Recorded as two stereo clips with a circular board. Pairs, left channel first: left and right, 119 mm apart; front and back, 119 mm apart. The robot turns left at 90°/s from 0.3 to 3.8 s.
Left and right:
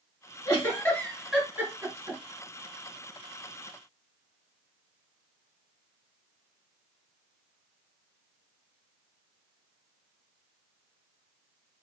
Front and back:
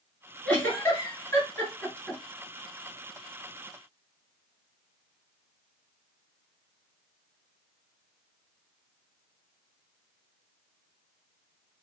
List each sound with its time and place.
0.5 s a giggle: 65° left, 1.8 m; by 2.2 s 90° right, 1.8 m